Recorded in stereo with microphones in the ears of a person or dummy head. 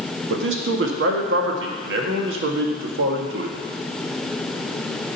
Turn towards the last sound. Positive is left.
turn(degrees=-80)